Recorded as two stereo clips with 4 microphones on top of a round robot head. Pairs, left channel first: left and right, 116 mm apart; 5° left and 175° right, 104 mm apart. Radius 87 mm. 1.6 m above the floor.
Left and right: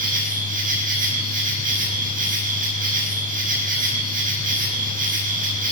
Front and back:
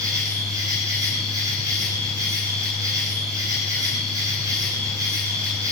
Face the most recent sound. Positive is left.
turn(degrees=-105)